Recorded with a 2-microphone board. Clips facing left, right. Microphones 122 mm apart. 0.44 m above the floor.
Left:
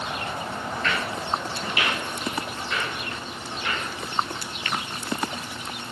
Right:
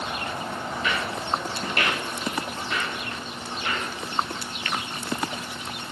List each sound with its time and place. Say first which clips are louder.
0.7 s footsteps: left 1 dB; 5° right (ahead or behind), 0.6 m; by 3.9 s 40° right (ahead or behind), 2.5 m